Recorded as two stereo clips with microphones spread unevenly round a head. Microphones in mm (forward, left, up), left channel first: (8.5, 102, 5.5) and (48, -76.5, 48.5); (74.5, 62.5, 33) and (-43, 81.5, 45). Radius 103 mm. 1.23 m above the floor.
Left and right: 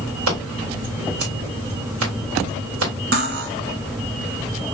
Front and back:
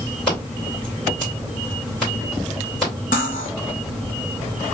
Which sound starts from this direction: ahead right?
Cutlery clinking, at 3.1 s.